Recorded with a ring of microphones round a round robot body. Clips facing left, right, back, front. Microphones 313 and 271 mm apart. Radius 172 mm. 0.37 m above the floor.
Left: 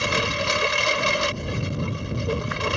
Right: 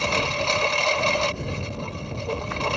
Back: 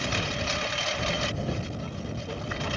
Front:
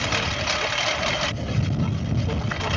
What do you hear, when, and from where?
0.0 s a lawn mower: 20° left